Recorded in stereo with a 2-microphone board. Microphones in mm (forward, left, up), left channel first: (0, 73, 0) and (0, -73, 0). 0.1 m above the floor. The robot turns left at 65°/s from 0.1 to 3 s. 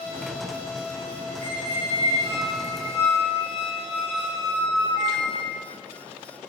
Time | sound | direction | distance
1.4 | a squeak | 75° right | 1.1 m